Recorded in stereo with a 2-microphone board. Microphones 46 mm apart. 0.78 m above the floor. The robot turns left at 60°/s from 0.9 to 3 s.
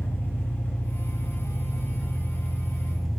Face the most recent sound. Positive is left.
turn(degrees=-5)